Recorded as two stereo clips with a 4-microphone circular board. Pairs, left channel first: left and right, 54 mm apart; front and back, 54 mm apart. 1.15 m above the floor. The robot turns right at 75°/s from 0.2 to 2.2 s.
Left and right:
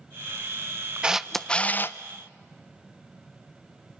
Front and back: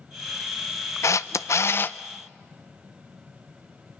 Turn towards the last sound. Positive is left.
turn(degrees=70)